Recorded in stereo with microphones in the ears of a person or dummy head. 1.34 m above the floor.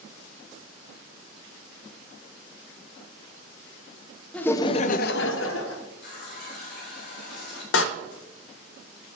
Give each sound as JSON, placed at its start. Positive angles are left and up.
{"t": 4.3, "sound": "laughter", "side_deg": 10, "distance_m": 0.7}
{"t": 6.0, "sound": "a running tap", "side_deg": 55, "distance_m": 1.5}
{"t": 7.7, "sound": "a door slam", "side_deg": 75, "distance_m": 0.6}